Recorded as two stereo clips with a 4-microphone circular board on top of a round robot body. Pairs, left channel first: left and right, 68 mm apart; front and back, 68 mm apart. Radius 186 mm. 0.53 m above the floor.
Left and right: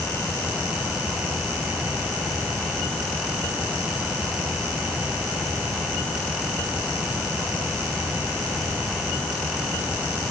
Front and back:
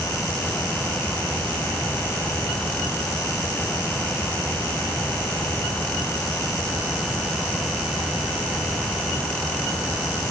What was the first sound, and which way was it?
Only background noise.